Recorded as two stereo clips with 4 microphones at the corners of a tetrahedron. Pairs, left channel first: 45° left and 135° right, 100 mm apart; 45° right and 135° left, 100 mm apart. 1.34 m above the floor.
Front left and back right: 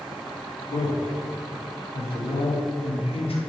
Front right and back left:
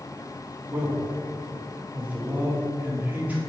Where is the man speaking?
65° left, 3 m.